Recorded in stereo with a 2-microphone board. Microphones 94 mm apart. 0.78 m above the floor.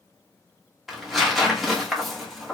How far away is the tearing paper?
About 1.5 m.